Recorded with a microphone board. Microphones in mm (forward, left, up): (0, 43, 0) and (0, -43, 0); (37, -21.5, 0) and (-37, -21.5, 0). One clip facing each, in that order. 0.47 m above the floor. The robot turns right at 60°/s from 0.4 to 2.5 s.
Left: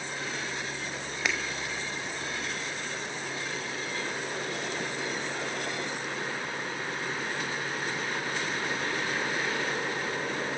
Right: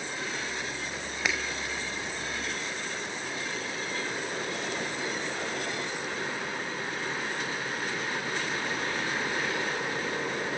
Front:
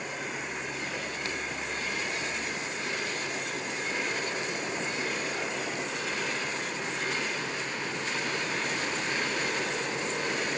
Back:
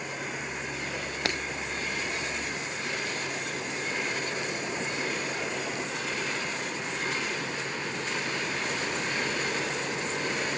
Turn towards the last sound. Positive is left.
turn(degrees=-105)